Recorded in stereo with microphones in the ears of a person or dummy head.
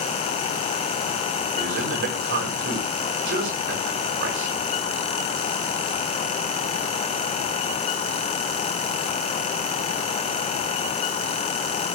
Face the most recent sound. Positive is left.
turn(degrees=-60)  # may be behind; listen again after turning